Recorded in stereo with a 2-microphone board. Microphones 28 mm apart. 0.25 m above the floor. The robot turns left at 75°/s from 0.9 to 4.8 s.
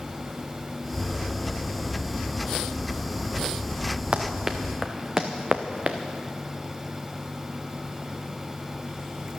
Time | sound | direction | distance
4.1 | running footsteps | 50° right (ahead or behind) | 1.5 m